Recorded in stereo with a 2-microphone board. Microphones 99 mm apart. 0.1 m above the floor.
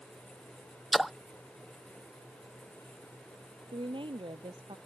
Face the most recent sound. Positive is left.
turn(degrees=-60)  # may be behind; listen again after turning